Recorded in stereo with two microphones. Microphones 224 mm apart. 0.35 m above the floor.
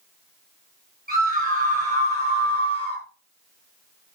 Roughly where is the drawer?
No drawer in this recording.